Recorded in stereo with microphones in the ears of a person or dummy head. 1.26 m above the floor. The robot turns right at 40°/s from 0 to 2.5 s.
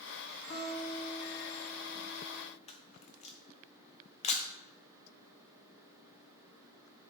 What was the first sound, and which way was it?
A guitar, 125° left.